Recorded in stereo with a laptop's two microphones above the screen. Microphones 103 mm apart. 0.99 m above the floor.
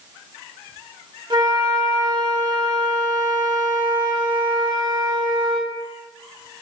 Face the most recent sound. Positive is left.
turn(degrees=-45)  # may be behind; listen again after turning